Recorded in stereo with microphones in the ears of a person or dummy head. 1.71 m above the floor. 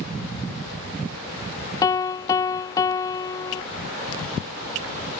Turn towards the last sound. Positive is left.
turn(degrees=20)  # may be behind; listen again after turning